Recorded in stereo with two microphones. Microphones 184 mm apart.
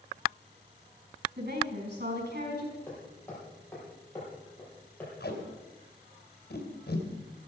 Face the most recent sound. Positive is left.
turn(degrees=60)  # may be behind; listen again after turning